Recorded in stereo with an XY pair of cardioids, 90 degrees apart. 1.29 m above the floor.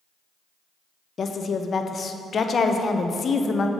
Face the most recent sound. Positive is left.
turn(degrees=50)